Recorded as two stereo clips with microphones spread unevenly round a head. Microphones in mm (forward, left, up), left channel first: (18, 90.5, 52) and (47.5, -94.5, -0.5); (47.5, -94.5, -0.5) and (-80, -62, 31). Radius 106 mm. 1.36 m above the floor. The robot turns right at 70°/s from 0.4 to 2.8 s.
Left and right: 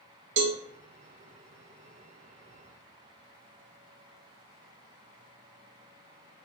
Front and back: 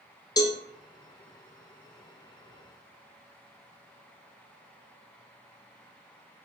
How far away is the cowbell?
About 0.6 m.